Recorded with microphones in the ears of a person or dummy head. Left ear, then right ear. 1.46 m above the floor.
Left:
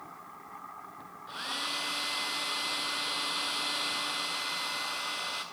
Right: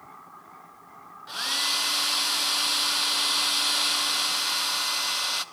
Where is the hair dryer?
30° right (ahead or behind), 0.7 m.